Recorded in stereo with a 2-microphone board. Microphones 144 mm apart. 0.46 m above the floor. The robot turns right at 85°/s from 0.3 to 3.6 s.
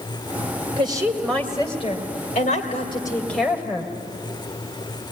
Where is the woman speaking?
45° right, 2.5 m; by 3.9 s 160° right, 2.5 m.